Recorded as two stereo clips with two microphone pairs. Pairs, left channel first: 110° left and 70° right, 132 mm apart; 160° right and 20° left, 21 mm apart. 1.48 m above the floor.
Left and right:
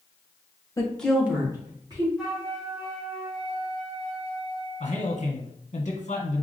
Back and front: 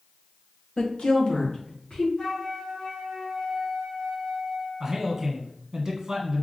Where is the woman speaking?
175° left, 1.1 m; by 2.1 s 125° right, 2.5 m.